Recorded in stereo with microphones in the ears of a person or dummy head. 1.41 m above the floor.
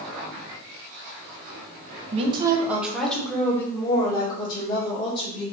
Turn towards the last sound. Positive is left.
turn(degrees=30)  # may be behind; listen again after turning